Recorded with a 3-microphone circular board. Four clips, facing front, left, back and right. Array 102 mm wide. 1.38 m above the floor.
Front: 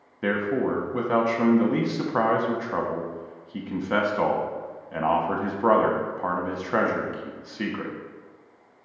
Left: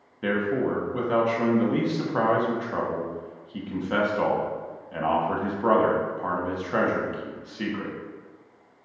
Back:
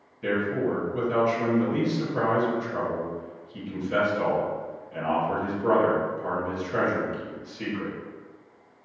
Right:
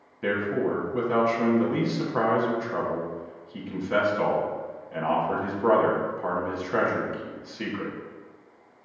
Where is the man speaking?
10° left, 0.7 m.